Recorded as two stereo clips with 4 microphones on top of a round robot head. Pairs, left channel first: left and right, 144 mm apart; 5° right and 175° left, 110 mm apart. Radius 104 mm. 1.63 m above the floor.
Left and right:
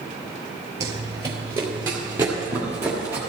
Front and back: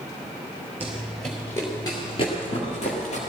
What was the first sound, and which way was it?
Running footsteps, 120° right.